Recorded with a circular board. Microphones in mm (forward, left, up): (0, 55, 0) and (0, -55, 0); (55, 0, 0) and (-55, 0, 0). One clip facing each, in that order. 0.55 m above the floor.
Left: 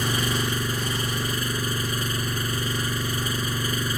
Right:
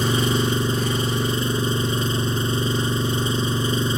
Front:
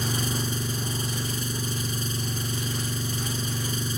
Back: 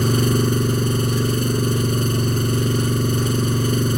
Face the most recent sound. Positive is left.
turn(degrees=-155)